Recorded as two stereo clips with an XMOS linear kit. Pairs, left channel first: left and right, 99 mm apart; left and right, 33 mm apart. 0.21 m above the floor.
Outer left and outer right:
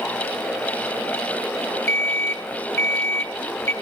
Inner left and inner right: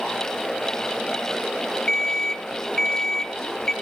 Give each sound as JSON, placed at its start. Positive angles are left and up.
{"t": 1.9, "sound": "an alarm clock", "side_deg": 25, "distance_m": 1.0}